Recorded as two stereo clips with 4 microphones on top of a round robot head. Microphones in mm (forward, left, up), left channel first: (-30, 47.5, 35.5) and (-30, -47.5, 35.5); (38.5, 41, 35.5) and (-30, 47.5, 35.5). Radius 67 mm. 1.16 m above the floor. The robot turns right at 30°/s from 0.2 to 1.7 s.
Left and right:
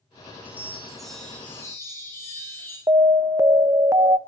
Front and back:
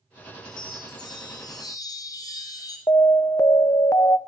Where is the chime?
15° right, 5 m; by 2.8 s 20° left, 5 m.